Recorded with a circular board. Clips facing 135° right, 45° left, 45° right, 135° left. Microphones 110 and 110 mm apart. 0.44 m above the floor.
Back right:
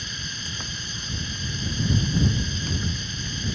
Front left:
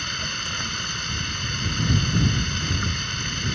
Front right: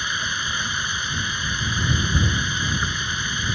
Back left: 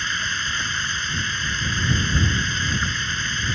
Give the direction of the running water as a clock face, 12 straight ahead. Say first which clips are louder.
Front left 5 dB, even; 11 o'clock.